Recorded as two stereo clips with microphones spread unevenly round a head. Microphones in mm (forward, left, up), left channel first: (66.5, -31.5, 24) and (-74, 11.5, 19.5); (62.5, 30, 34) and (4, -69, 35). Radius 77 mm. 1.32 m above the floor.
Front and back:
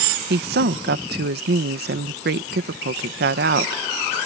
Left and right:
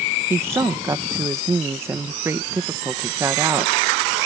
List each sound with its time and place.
0.3 s a woman speaking: 170° left